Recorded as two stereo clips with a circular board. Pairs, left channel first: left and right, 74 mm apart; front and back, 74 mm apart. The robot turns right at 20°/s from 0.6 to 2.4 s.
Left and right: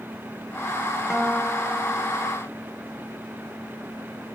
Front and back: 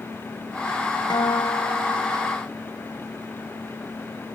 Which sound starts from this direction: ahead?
A guitar, at 1.1 s.